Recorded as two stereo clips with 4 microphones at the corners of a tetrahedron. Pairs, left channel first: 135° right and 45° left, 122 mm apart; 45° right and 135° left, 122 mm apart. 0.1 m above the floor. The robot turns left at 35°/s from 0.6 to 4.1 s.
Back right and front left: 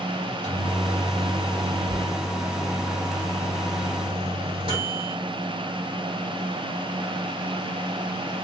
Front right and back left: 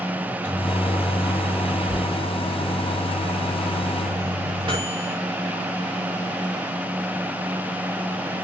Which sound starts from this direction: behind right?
A microwave, at 0.2 s.